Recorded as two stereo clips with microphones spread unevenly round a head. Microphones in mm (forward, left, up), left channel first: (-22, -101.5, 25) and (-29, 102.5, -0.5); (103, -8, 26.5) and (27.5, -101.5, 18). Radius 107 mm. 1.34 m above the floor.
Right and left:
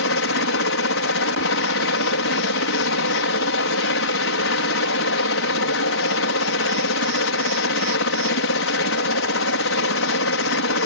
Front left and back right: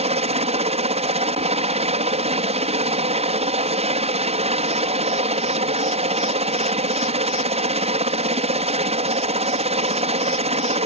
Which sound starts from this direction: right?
A helicopter, at 0.0 s.